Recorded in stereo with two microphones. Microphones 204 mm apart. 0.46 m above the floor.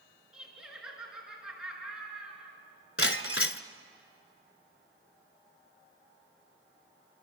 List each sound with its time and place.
0.3 s laughter: 5° right (ahead or behind), 7 m
3.0 s breaking glass: 70° left (ahead or behind), 0.9 m